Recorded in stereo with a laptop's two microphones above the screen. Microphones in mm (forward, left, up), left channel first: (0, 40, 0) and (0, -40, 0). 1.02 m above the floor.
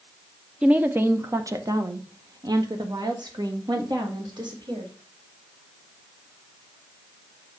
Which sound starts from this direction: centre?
A woman speaking, at 0.6 s.